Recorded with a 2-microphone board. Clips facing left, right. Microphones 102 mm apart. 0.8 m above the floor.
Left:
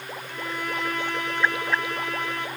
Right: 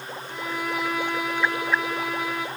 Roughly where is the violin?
Centre.